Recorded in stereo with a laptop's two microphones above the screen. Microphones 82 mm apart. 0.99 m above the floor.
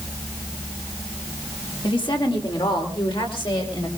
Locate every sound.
1.8 s a woman speaking: 80° left, 2.5 m; by 3.9 s 85° left, 4 m